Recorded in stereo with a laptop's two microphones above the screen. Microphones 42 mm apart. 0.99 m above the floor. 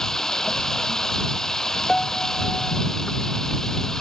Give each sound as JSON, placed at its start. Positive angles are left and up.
{"t": 0.0, "sound": "running water", "side_deg": 10}
{"t": 1.9, "sound": "a piano", "side_deg": 15}